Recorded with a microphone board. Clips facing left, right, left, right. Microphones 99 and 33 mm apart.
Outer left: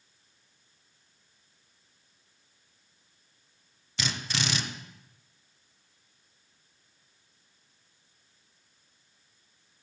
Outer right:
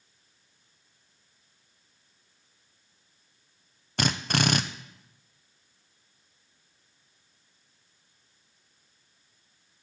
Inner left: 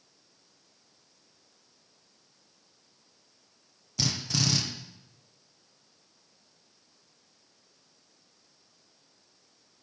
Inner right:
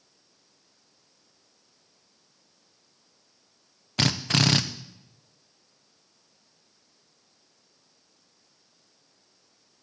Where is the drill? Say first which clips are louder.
Outer right 7 dB, inner right 6 dB; 55° right (ahead or behind), 0.7 m.